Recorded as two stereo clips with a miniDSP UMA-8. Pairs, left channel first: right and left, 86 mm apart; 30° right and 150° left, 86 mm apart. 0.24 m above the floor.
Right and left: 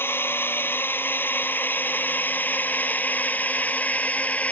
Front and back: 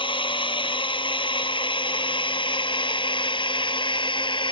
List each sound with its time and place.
0.0 s a drone: 25° right; by 4.5 s 20° right